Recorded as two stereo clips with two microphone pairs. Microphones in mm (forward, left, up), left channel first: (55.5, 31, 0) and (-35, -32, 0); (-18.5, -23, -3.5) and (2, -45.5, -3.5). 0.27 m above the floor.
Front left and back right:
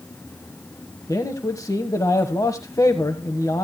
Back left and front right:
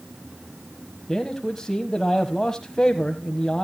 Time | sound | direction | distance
1.1 | a man speaking | 75° left | 1.3 m